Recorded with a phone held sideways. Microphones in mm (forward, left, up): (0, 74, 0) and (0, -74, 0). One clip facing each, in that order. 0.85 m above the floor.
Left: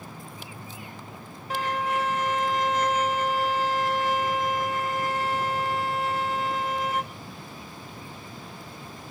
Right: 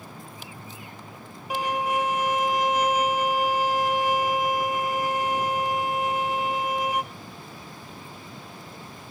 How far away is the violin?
About 0.9 m.